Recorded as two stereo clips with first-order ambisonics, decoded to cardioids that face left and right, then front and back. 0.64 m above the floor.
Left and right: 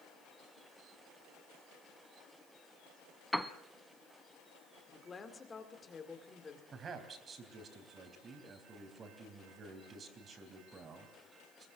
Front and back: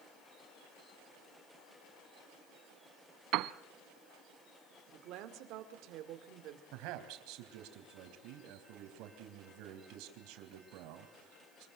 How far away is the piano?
About 0.8 m.